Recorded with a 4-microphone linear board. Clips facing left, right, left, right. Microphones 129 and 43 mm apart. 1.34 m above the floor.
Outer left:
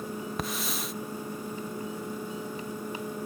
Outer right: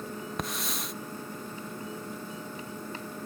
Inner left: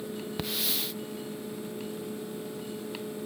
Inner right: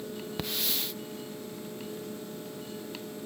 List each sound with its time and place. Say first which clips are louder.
0.4 s a hiss: outer left 2 dB, even; centre (ahead or behind)